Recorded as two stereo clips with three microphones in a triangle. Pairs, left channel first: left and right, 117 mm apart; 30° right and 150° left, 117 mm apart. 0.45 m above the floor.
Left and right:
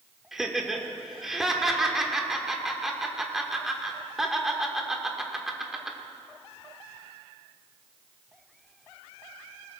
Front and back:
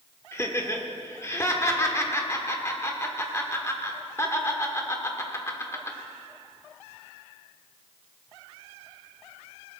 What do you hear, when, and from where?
0.3 s laughter: 5° right, 1.2 m